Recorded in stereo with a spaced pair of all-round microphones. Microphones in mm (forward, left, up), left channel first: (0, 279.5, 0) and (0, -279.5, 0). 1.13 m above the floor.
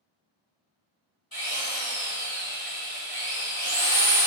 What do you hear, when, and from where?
1.3 s a drill: 60° left (ahead or behind), 1.8 m